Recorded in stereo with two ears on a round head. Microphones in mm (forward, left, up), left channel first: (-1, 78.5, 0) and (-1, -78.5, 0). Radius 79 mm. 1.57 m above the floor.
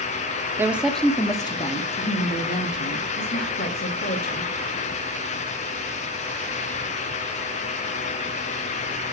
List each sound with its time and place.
0.6 s a woman speaking: 15° right (ahead or behind), 0.7 m; by 4.5 s 65° left (ahead or behind), 2 m